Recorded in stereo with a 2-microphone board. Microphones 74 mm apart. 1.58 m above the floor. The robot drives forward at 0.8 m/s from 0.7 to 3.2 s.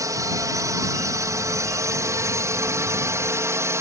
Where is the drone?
50° right (ahead or behind); by 3.8 s 40° right (ahead or behind).